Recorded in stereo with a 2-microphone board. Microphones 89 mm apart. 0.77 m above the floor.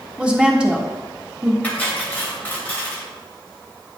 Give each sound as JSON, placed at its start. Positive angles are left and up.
{"t": 0.2, "sound": "a woman speaking", "side_deg": -10, "distance_m": 1.2}
{"t": 1.6, "sound": "cutlery clinking", "side_deg": 20, "distance_m": 2.5}